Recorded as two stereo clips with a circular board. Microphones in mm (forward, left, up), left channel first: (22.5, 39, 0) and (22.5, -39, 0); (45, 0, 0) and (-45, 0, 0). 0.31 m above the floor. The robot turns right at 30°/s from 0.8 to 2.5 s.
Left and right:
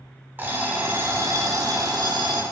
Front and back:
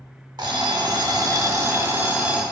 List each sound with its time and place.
0.4 s an alarm clock: 150° right, 0.7 m; by 2.4 s 100° right, 0.7 m